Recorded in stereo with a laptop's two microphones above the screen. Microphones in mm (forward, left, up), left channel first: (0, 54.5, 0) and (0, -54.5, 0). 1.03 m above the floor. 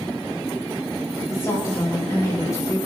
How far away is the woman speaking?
About 4 m.